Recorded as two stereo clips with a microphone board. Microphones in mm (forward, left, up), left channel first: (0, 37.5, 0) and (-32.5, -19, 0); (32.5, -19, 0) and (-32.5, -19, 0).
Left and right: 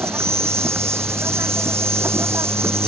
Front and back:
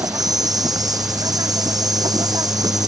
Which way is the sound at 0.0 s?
170° right.